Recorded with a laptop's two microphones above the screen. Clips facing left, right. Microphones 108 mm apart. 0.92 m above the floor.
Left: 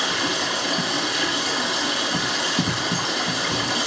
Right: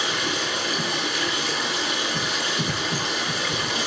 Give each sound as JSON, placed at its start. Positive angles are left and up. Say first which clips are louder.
{"t": 0.0, "sound": "running water", "louder": "left 2 dB", "side_deg": 70, "distance_m": 1.5}